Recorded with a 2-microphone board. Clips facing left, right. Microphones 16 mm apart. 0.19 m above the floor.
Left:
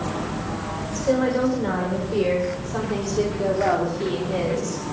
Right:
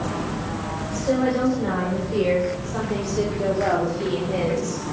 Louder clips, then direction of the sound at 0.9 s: Left 1 dB; 10° left (ahead or behind).